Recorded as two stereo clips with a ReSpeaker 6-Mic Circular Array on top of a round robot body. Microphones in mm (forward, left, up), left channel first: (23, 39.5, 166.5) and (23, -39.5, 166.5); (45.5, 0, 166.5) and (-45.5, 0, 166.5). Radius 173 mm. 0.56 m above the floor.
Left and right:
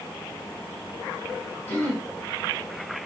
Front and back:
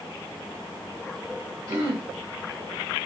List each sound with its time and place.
1.7 s throat clearing: 145° left, 1.3 m